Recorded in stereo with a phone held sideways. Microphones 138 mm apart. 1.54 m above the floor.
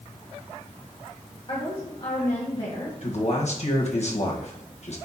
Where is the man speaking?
55° left (ahead or behind), 1.8 m.